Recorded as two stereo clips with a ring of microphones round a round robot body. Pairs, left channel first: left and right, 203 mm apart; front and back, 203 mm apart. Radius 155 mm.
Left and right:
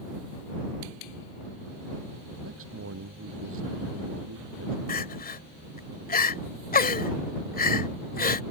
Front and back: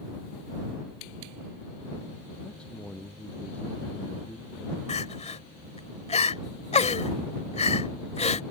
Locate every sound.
2.4 s a man speaking: 85° right
4.9 s crying: 55° left